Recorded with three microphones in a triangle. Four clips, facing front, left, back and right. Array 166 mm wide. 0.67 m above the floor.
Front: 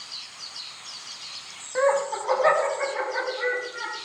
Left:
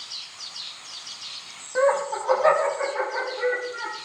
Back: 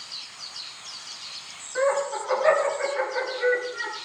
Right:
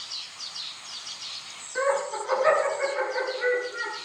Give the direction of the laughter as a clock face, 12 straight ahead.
10 o'clock.